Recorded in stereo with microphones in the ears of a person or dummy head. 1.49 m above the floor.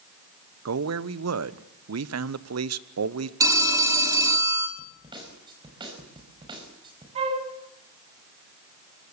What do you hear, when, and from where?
0.7 s a man speaking: 75° right (ahead or behind), 0.9 m
3.4 s a phone ringing: 15° right (ahead or behind), 2 m
4.8 s a snare drum: 25° right (ahead or behind), 5 m
7.2 s a flute: 40° right (ahead or behind), 3.5 m